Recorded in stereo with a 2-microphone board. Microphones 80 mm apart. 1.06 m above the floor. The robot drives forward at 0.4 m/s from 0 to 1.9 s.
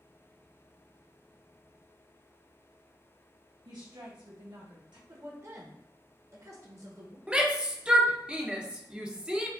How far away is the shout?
About 0.6 m.